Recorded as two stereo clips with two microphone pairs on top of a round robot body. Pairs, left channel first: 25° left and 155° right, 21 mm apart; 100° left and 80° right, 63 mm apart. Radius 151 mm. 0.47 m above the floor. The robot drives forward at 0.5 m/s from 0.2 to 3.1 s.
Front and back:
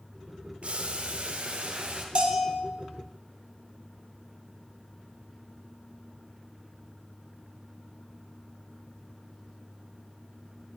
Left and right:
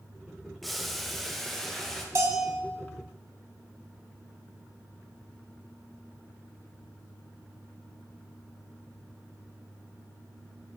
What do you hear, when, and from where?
0.6 s boiling: 170° right, 1.0 m; by 2.0 s 175° right, 1.7 m
2.1 s a bell: 130° right, 1.9 m; by 2.6 s 135° right, 2 m